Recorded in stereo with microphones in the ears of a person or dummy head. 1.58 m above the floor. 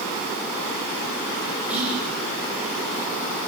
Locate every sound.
1.7 s whispering: 15° right (ahead or behind), 6 m